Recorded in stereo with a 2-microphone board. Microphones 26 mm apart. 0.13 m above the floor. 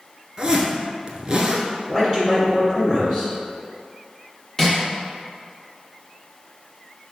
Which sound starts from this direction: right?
A zipper, at 0.4 s.